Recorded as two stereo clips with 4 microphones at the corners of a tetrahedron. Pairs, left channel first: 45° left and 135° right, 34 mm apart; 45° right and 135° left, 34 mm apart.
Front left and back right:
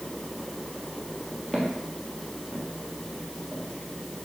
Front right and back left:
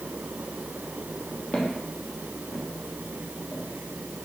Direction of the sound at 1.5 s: 40° right.